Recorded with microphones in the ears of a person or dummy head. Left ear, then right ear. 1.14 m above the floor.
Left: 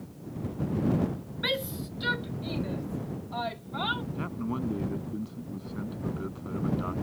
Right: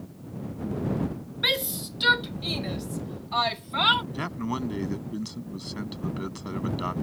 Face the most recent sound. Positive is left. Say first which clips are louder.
# right 4 dB
turn(degrees=-75)  # may be behind; listen again after turning